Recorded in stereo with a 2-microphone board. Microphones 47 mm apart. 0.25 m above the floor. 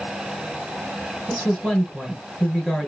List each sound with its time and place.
1.3 s a woman speaking: 15° left (ahead or behind), 4 m